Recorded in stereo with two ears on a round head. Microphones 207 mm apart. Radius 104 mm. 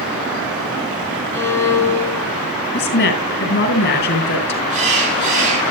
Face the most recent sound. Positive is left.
turn(degrees=-35)  # may be behind; listen again after turning